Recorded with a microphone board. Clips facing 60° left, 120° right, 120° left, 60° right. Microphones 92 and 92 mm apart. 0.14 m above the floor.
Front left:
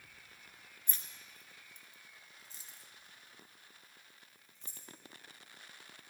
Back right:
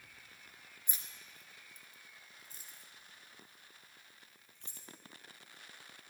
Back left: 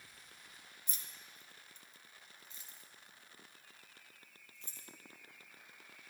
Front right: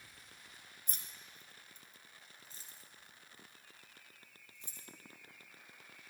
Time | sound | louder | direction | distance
0.9 | keys jangling | even, front right 1 dB | 45° right | 1.7 m